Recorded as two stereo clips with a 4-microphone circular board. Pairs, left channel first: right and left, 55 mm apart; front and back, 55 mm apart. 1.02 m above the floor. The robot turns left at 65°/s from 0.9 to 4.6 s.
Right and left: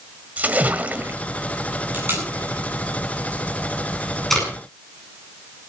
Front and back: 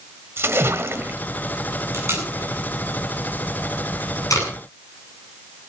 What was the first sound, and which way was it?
A splash, 145° left.